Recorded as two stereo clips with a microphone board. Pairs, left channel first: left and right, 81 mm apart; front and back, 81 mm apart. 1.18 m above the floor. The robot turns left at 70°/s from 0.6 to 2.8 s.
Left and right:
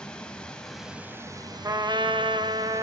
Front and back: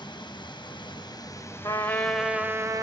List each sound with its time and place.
0.0 s running water: 15° left, 0.8 m; by 2.8 s 140° right, 0.8 m
1.6 s a trumpet: 40° right, 0.8 m; by 2.8 s 120° right, 0.8 m